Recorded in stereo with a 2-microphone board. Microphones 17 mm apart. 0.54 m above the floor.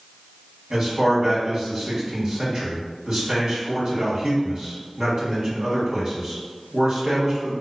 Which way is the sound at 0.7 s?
40° right (ahead or behind).